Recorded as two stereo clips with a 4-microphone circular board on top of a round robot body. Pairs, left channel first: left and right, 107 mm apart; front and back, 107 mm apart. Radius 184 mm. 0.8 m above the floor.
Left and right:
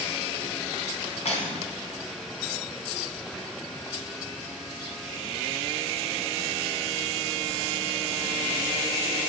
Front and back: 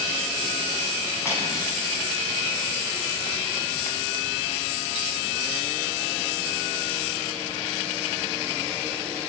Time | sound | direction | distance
1.2 | cutlery clinking | 65° left | 4.5 m